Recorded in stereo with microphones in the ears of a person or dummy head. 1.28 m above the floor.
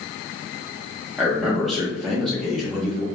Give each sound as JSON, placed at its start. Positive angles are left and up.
{"t": 1.2, "sound": "a man speaking", "side_deg": 0, "distance_m": 0.9}